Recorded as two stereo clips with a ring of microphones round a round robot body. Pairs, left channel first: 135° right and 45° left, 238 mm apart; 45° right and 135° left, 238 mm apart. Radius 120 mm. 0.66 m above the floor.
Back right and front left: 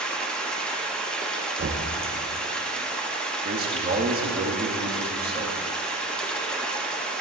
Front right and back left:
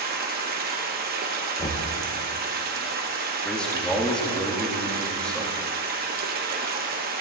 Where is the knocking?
15° left, 0.9 m.